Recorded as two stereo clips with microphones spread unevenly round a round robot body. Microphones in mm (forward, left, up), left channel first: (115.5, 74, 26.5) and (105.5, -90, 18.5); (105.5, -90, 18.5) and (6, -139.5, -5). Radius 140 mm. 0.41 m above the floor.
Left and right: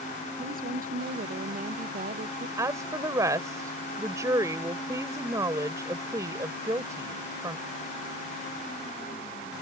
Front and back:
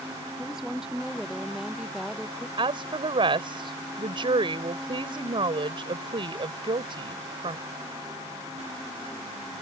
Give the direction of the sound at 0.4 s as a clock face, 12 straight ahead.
2 o'clock.